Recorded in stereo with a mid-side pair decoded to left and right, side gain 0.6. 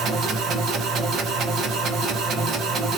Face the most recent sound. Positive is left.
turn(degrees=-55)